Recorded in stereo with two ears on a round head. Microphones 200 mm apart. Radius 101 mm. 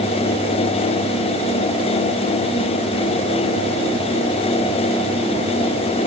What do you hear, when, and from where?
Only background noise.